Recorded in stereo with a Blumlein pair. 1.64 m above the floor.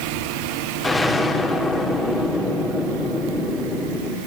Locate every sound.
0.8 s an explosion: 5° left, 3.5 m